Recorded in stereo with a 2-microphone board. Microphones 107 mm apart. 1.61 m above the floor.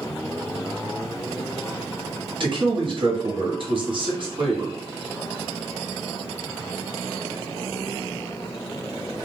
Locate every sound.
2.4 s a man speaking: 55° right (ahead or behind), 0.9 m